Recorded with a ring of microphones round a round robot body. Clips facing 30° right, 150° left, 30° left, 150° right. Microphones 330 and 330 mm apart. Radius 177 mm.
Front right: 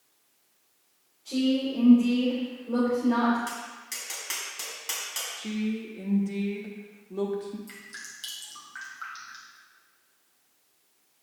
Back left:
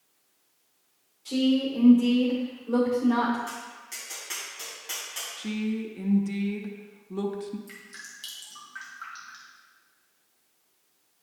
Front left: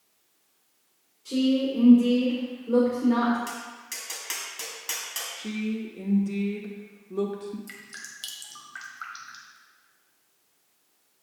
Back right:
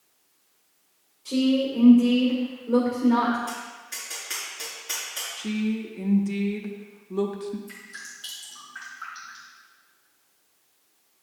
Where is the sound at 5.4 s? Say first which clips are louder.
Back left 1 dB, back right 3 dB; 150° left, 0.8 m.